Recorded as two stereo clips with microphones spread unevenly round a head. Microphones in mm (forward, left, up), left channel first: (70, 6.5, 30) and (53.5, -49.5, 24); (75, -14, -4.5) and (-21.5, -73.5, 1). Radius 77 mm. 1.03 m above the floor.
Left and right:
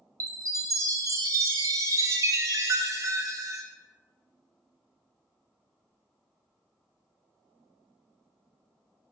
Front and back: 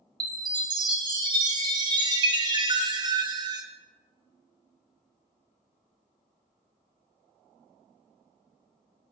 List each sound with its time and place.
0.2 s a chime: 100° right, 0.7 m